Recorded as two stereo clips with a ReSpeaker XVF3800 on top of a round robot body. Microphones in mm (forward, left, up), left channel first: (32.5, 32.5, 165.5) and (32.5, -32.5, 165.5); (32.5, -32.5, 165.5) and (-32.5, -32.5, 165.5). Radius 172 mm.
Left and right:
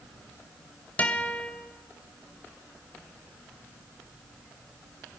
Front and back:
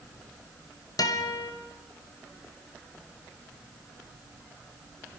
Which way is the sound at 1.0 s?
25° left.